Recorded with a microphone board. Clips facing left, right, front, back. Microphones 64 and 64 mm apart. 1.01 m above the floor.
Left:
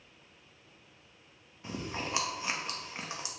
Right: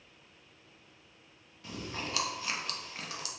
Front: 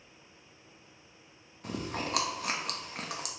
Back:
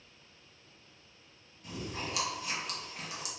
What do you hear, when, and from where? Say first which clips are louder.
1.6 s chewing: left 2 dB, front 4 dB; 25° left, 1.0 m